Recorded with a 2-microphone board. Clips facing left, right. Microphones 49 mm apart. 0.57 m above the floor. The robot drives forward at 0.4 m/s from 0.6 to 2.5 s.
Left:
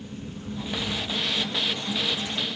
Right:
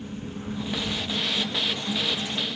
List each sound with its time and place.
Only background noise.